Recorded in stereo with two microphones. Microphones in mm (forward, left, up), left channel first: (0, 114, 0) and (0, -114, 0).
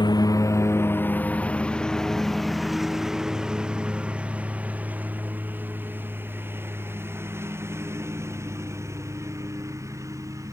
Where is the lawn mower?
20° left (ahead or behind); by 10.5 s 15° right (ahead or behind).